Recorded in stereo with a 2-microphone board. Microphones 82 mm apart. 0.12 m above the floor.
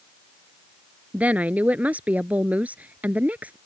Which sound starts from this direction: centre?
A woman speaking, at 1.1 s.